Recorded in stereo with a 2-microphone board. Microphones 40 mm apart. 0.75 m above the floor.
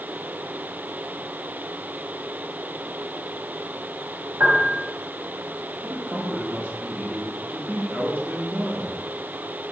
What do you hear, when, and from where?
4.4 s a piano: 65° right (ahead or behind), 2 m
5.8 s a man speaking: 65° right (ahead or behind), 1.4 m